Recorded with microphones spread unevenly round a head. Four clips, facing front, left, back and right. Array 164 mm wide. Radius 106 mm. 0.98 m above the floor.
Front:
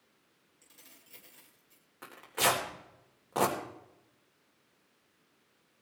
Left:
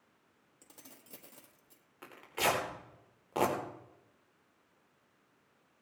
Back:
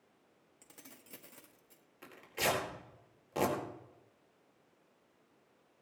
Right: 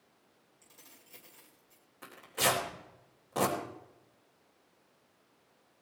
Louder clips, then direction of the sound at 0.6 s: Left 4 dB, back 5 dB; 150° left.